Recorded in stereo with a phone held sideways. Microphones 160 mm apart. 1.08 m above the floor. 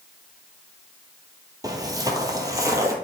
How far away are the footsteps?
About 1.1 m.